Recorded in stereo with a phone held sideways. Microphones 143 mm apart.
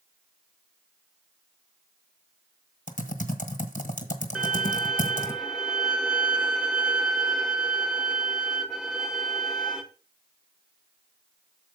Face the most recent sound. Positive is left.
turn(degrees=-5)  # may be behind; listen again after turning